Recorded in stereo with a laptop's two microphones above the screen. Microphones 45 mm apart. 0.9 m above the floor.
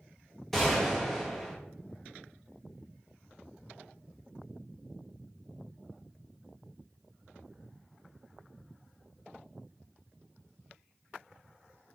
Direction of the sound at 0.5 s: 5° left (ahead or behind).